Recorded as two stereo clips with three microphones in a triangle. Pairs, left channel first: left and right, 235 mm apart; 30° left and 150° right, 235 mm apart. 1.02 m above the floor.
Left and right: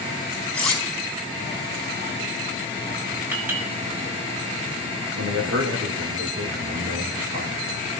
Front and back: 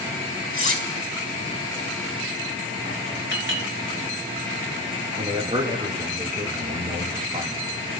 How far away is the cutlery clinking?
About 5 m.